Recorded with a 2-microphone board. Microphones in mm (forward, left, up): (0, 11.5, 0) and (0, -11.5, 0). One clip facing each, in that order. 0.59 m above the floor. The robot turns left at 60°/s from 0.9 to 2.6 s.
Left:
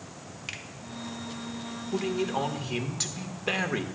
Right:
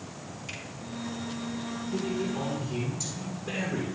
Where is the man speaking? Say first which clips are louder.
Left 3 dB; 110° left, 1.4 m; by 3.9 s 70° left, 1.4 m.